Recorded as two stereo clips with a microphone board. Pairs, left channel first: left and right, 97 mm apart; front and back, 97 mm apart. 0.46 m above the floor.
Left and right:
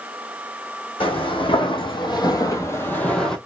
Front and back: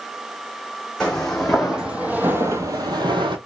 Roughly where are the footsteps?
Left.